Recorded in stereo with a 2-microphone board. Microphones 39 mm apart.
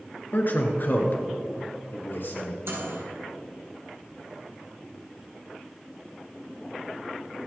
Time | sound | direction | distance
0.3 | a man speaking | 50° left (ahead or behind) | 1.8 m
2.6 | a microwave | 75° right (ahead or behind) | 4 m